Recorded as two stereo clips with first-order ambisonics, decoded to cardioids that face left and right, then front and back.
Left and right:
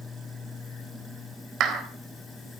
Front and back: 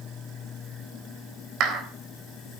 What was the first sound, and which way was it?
A clap, 140° right.